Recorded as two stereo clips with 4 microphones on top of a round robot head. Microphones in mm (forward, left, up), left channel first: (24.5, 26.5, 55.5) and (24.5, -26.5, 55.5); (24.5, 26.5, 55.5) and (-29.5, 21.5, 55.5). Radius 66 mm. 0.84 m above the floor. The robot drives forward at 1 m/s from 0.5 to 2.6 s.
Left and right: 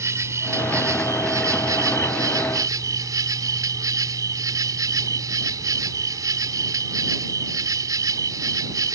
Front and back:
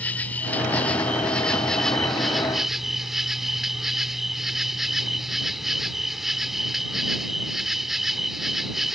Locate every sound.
0.0 s an insect: 60° right; by 9.0 s 90° right